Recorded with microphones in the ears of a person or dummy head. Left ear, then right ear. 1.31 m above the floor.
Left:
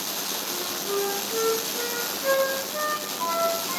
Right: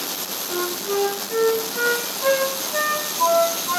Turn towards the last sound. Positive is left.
turn(degrees=-75)  # may be behind; listen again after turning